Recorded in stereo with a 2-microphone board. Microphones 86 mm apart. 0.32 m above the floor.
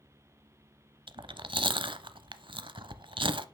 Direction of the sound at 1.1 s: 75° right (ahead or behind).